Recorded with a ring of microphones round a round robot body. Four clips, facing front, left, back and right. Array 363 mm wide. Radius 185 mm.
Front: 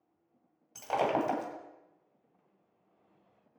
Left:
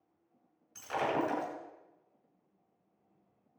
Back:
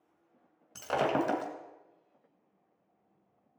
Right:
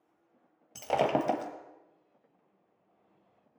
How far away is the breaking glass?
About 1.7 m.